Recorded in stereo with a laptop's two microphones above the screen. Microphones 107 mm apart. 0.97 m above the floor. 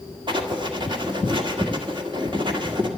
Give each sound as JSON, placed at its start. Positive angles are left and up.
{"t": 0.3, "sound": "writing", "side_deg": -45, "distance_m": 1.7}